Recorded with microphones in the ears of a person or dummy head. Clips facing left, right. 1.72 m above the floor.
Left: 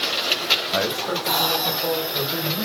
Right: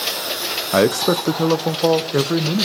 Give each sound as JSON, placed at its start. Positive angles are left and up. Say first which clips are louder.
{"t": 0.7, "sound": "a man speaking", "louder": "right 10 dB", "side_deg": -55, "distance_m": 0.7}